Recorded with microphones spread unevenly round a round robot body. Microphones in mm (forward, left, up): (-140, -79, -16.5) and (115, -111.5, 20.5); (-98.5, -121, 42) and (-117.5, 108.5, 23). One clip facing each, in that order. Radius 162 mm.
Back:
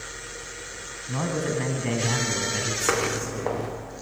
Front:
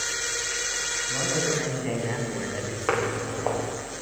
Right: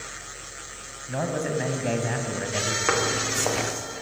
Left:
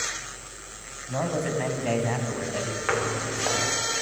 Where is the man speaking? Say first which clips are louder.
Back 1 dB, even; 165° right, 3.5 m; by 2.8 s 150° right, 3.5 m.